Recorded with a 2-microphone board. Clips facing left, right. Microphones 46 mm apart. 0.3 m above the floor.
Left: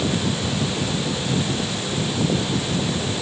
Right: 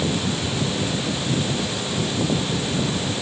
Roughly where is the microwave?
No microwave in this recording.